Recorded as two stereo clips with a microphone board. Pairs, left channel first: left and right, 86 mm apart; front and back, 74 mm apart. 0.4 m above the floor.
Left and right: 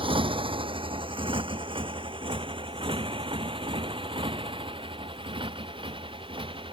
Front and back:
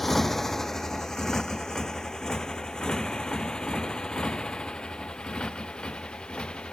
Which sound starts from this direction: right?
A motorcycle, at 0.0 s.